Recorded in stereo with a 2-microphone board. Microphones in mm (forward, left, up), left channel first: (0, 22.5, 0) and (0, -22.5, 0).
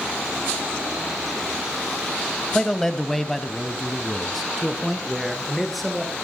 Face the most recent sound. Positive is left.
turn(degrees=0)  # may be behind; listen again after turning